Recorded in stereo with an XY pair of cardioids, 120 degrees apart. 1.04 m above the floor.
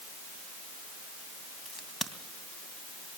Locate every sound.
1.6 s a crack: 20° left, 2.5 m